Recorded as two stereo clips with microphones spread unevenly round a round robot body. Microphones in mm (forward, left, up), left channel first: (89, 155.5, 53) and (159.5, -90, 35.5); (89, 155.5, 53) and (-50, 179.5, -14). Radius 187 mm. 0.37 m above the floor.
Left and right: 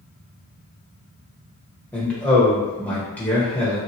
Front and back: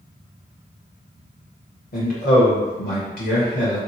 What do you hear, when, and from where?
1.9 s a man speaking: 20° left, 1.2 m